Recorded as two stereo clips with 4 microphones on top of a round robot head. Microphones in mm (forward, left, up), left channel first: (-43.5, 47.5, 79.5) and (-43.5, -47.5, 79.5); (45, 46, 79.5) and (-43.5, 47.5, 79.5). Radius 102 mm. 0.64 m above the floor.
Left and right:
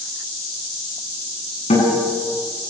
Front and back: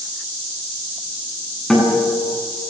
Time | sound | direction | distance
1.7 | a guitar | 85° left | 9 m